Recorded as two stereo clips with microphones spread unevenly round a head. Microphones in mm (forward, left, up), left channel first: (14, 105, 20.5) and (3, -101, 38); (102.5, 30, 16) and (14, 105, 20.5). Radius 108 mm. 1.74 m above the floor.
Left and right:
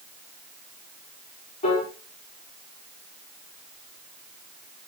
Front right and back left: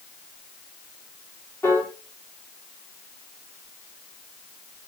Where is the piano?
25° left, 3.5 m.